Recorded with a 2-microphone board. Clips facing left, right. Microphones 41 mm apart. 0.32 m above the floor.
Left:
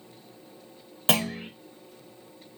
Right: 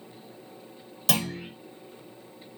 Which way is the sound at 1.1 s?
35° left (ahead or behind).